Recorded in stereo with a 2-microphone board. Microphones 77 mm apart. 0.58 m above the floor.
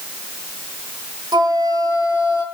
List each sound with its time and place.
1.3 s a flute: 60° right (ahead or behind), 5.5 m